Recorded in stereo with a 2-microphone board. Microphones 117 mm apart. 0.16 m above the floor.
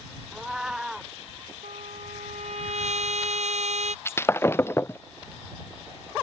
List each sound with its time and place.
0.3 s a cat meowing: 5° right (ahead or behind)
1.6 s a trumpet: 75° right (ahead or behind)
4.0 s breaking glass: 20° left (ahead or behind)